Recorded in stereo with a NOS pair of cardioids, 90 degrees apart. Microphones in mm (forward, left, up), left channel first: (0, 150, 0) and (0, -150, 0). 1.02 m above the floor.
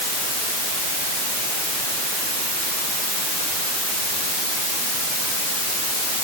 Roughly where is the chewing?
No chewing in this recording.